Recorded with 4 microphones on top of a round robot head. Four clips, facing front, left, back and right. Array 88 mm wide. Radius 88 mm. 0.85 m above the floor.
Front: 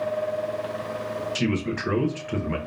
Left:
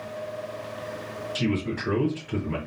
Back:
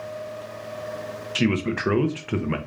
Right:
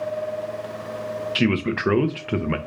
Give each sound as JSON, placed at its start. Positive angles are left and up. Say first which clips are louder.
{"t": 1.4, "sound": "a man speaking", "louder": "right 5 dB, back 5 dB", "azimuth_deg": -115, "distance_m": 0.6}